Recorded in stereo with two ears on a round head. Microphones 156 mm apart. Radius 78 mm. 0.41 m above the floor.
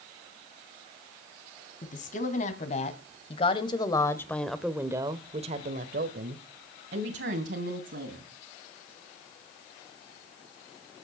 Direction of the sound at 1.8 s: 45° left (ahead or behind).